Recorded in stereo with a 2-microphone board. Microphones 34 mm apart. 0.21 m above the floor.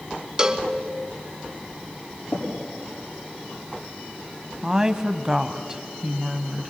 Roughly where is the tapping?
Left.